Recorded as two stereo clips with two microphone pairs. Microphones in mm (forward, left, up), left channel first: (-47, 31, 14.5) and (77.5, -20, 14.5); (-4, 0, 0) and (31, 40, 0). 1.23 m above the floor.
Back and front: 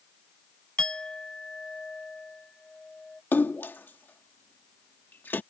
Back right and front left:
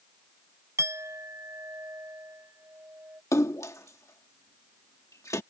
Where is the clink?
75° left.